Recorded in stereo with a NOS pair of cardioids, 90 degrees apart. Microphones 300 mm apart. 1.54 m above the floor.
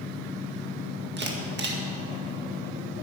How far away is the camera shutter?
About 2.0 m.